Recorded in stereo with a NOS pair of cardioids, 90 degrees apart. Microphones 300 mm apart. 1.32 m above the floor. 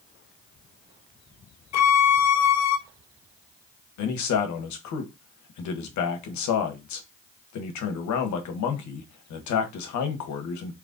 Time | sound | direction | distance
1.7 | a violin | 60° left | 0.6 m
4.0 | a man speaking | 70° left | 1.1 m